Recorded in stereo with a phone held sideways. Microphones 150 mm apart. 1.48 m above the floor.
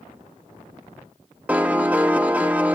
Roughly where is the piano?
Centre.